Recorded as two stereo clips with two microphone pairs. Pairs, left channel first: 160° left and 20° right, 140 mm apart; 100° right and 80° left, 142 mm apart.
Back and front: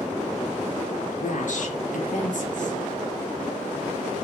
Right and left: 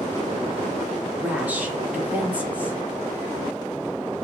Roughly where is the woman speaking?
Behind left.